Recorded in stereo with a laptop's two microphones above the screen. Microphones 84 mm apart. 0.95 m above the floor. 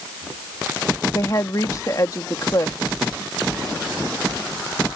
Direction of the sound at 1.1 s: 40° left (ahead or behind).